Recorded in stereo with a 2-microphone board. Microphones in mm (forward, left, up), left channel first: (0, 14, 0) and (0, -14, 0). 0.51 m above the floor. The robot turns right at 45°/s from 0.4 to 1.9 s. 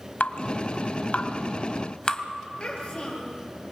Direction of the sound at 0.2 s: 80° left.